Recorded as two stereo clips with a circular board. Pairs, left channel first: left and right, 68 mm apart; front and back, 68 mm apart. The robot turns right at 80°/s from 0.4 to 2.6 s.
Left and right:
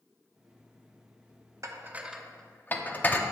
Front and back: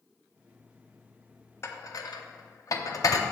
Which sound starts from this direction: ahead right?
Dishes clattering, at 1.6 s.